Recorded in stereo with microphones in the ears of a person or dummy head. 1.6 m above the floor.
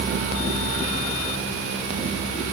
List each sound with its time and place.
Only background noise.